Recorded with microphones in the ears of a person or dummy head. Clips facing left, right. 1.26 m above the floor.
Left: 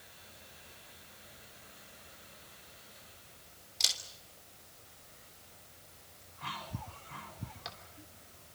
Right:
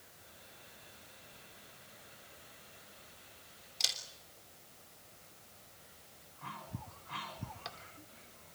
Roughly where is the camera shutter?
Centre.